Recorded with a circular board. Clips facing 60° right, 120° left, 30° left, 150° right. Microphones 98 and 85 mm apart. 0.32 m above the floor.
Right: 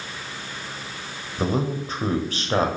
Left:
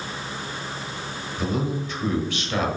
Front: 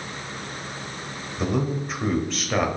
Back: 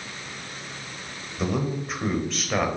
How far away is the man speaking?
About 1.1 m.